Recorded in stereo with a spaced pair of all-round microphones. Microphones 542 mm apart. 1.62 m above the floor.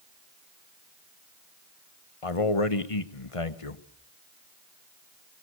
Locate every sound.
2.2 s a man speaking: 75° left (ahead or behind), 1.4 m